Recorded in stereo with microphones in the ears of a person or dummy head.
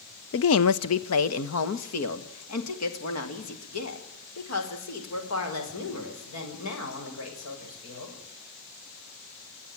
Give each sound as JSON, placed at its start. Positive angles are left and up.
{"t": 0.3, "sound": "a woman speaking", "side_deg": 60, "distance_m": 0.5}